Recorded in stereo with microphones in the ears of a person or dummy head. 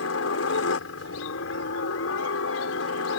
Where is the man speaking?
No man speaking in this recording.